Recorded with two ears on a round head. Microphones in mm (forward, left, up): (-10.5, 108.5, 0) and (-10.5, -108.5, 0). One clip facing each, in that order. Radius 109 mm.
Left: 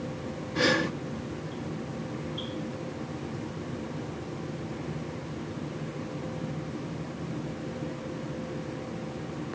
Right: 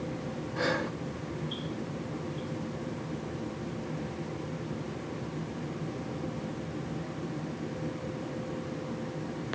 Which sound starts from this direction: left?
Breathing, at 0.6 s.